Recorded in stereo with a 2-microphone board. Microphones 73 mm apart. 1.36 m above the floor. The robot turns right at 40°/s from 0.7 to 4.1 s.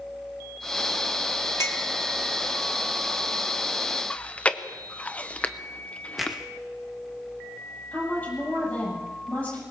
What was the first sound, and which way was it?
A clink, 40° left (ahead or behind).